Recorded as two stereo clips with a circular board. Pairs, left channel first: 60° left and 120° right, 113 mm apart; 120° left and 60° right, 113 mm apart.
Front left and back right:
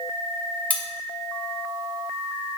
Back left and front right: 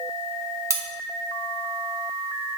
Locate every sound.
0.7 s cutlery clinking: 10° right, 1.2 m